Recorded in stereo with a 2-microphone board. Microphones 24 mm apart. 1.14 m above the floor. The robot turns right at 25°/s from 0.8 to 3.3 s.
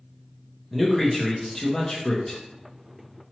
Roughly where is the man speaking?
Ahead.